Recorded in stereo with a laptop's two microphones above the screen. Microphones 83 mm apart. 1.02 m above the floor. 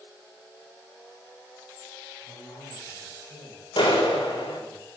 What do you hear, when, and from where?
2.3 s a man speaking: 55° left (ahead or behind), 7 m; by 4.8 s 85° left, 7 m
3.8 s a clap: 80° left, 4.5 m